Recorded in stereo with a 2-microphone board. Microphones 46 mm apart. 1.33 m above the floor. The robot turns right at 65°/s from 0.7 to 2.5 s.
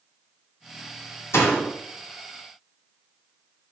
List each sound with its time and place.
1.3 s a door slam: 75° left (ahead or behind), 2.5 m; by 1.7 s 55° left (ahead or behind), 2.5 m